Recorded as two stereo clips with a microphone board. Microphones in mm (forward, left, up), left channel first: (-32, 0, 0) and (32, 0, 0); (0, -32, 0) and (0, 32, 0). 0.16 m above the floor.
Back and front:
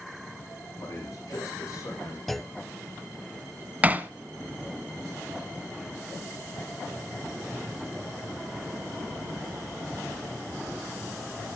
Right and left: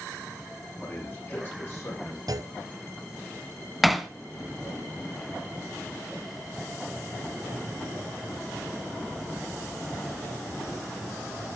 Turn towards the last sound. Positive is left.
turn(degrees=0)